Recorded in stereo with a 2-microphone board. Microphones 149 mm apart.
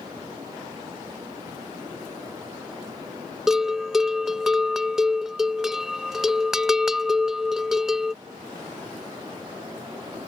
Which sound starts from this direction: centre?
A bell, at 3.5 s.